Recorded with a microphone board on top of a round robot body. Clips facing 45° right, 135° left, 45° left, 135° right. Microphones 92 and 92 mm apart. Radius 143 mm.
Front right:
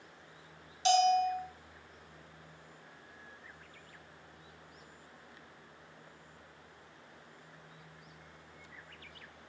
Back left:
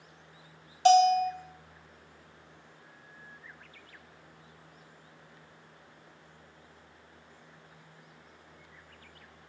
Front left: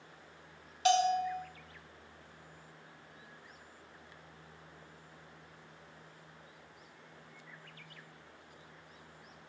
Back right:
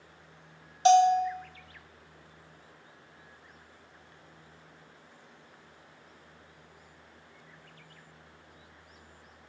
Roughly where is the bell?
Behind.